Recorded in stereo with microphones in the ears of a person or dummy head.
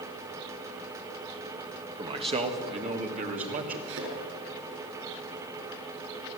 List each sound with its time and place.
2.0 s a man speaking: 25° right (ahead or behind), 1.6 m; by 3.8 s 45° right (ahead or behind), 2.5 m
3.9 s a thud: 75° right (ahead or behind), 7 m